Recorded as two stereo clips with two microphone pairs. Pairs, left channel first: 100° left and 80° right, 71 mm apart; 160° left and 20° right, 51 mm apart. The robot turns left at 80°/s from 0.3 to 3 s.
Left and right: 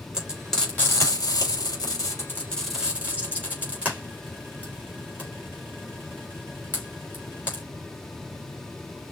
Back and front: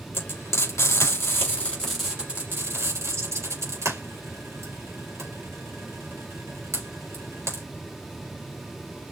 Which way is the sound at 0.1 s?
155° right.